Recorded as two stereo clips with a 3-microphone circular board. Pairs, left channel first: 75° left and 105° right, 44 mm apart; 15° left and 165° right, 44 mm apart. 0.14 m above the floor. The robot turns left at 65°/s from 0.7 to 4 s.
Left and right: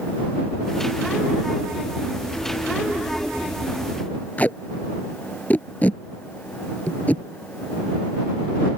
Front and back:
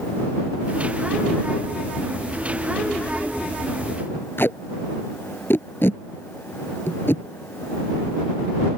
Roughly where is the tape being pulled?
Ahead left.